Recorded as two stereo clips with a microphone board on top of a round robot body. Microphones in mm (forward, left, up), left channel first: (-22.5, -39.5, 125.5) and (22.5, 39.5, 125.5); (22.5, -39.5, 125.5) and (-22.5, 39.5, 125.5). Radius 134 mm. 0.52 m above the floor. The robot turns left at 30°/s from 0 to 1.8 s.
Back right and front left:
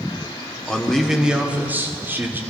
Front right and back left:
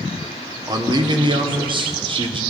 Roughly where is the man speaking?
Behind.